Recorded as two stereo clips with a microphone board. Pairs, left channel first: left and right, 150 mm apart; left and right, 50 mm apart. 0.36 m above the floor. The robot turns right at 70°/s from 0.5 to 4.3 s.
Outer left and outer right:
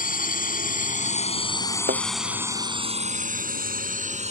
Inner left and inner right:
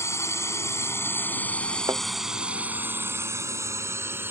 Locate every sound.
0.0 s a drone: 65° left (ahead or behind); by 4.3 s 45° right (ahead or behind)
1.9 s a thud: 90° right; by 2.0 s 80° right